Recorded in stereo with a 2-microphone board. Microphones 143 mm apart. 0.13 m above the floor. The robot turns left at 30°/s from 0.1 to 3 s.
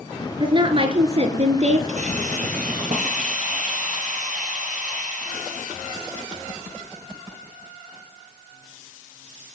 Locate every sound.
0.4 s a woman speaking: 45° right, 2 m; by 1.8 s 85° right, 2 m
1.9 s a hiss: 65° right, 2.5 m; by 5.9 s 95° right, 2.5 m